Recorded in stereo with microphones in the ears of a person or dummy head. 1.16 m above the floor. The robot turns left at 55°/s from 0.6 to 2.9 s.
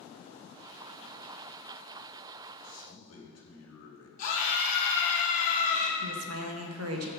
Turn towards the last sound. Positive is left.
turn(degrees=-80)